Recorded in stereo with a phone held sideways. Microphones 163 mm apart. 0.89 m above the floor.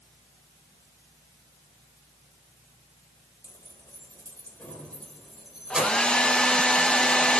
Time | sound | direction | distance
3.4 | keys jangling | 20° left (ahead or behind) | 2.5 m
5.7 | a hair dryer | 5° left (ahead or behind) | 0.7 m